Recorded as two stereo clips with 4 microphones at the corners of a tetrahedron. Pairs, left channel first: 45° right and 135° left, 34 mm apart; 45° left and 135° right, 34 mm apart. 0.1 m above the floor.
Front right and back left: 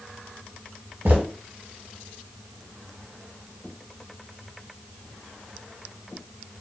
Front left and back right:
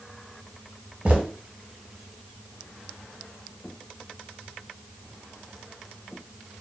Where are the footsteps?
170° left, 1.2 m.